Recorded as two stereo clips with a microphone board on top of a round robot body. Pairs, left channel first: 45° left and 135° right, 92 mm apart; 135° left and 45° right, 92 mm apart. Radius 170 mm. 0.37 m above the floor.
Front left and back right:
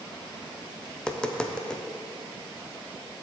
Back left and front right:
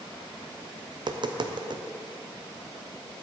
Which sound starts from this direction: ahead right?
Tapping, at 0.9 s.